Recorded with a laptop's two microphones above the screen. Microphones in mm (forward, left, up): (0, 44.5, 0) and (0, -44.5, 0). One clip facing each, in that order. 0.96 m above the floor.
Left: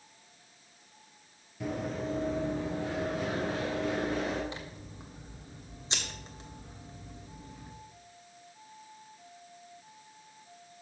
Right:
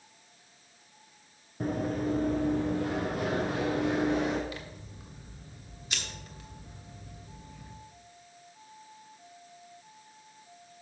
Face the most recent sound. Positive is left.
turn(degrees=30)  # may be behind; listen again after turning